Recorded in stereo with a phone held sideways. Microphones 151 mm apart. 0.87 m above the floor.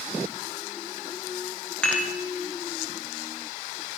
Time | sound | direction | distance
1.8 | dishes clattering | 5° left (ahead or behind) | 0.9 m